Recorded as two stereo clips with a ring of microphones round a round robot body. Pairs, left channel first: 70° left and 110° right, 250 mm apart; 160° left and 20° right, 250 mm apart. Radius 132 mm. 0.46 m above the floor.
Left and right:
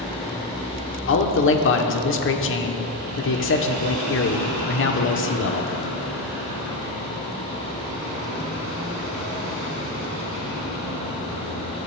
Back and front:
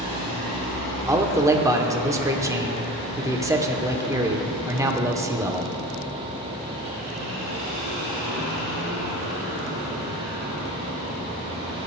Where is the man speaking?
55° left, 1.0 m.